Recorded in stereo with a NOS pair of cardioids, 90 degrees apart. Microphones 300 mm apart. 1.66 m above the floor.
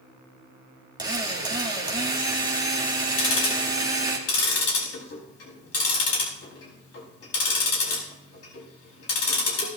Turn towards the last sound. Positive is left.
turn(degrees=50)